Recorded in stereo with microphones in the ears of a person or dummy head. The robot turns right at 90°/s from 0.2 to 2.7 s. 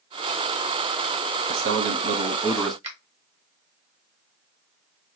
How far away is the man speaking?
About 0.6 m.